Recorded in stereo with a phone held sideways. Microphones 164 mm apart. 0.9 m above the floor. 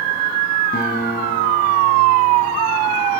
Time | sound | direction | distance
0.7 | a guitar | 70° left (ahead or behind) | 3.5 m